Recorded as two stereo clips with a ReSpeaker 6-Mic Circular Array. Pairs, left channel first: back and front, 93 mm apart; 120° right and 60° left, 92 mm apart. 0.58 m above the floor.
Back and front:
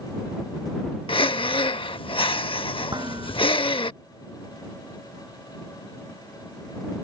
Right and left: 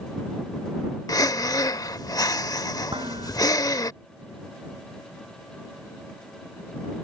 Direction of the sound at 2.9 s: 40° left.